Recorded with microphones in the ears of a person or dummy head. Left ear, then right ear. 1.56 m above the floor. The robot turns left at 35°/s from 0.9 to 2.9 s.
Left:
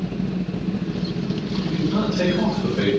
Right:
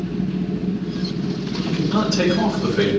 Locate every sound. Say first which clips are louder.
1.6 s a man speaking: right 3 dB; 85° right, 7 m; by 2.9 s 130° right, 7 m